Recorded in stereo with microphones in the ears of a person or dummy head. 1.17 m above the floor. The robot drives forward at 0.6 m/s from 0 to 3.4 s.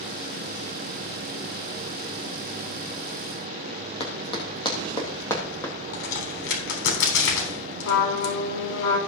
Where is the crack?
80° left, 3.5 m.